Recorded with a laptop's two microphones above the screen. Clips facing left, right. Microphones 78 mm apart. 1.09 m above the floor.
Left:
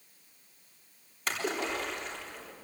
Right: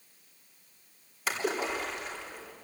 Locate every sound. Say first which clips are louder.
1.3 s a splash: right 2 dB; 5° right (ahead or behind), 3.5 m